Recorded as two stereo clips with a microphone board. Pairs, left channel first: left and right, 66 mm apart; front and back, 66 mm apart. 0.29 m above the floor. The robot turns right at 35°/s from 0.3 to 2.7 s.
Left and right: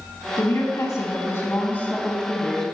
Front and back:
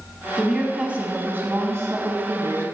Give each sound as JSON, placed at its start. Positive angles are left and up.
{"t": 0.4, "sound": "a woman speaking", "azimuth_deg": 95, "distance_m": 2.0}